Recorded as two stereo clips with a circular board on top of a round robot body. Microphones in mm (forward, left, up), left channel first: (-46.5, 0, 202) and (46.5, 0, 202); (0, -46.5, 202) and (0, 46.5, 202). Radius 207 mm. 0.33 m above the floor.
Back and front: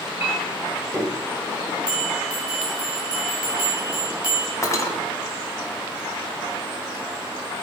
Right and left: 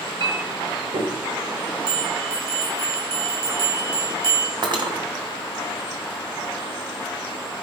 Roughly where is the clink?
Left.